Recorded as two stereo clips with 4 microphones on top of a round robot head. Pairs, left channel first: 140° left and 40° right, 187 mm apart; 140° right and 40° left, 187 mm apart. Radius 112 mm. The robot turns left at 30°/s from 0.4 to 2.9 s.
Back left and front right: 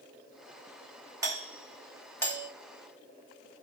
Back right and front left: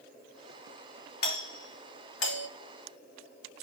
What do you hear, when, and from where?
1.2 s a doorbell: 110° right, 3.5 m; by 2.5 s 150° right, 3.5 m